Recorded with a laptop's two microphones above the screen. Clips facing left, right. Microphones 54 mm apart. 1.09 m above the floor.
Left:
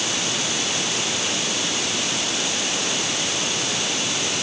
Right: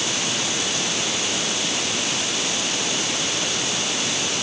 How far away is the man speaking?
I don't hear a man speaking.